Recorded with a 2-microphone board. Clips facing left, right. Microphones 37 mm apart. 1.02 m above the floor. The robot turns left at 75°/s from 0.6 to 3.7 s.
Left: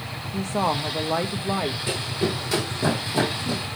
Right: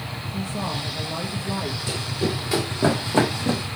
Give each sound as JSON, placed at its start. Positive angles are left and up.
{"t": 0.3, "sound": "a woman speaking", "azimuth_deg": 115, "distance_m": 0.8}
{"t": 1.9, "sound": "running footsteps", "side_deg": 35, "distance_m": 4.5}